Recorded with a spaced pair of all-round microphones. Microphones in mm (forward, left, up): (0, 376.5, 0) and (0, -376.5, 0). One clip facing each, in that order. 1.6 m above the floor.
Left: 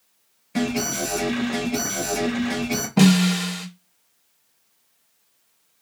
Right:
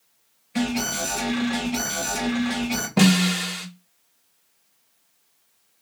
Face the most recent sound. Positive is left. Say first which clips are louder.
# left 2 dB
turn(degrees=-10)  # may be behind; listen again after turning